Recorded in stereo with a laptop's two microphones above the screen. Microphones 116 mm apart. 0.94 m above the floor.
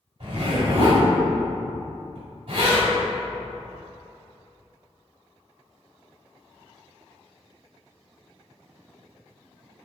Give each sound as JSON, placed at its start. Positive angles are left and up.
{"t": 0.2, "sound": "a zipper", "side_deg": -55, "distance_m": 1.9}